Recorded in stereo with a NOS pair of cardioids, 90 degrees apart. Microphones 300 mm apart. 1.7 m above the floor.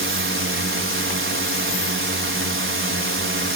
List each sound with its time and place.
0.0 s a drone: 45° right